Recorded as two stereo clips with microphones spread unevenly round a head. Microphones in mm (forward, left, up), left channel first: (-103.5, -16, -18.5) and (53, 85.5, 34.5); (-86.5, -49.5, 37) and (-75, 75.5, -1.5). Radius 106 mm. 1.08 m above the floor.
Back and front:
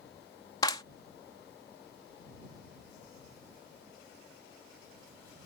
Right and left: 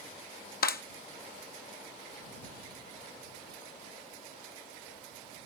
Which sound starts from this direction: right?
A clap, at 0.6 s.